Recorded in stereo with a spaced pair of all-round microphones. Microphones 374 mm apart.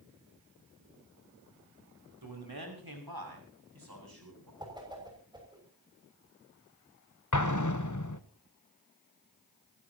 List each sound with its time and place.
2.2 s a man speaking: 75° right (ahead or behind), 6 m; by 4.5 s 70° right (ahead or behind), 8.5 m
4.6 s a whoosh: 10° right (ahead or behind), 6.5 m
7.3 s an explosion: 50° left (ahead or behind), 1.1 m